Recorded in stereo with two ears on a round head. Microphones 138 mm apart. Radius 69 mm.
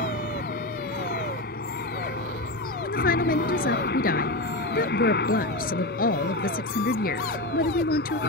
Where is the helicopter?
60° left (ahead or behind); by 8.3 s 70° left (ahead or behind).